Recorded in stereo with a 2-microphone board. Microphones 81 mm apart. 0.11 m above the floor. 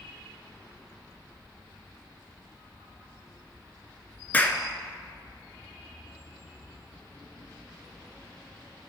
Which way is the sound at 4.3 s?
20° left (ahead or behind).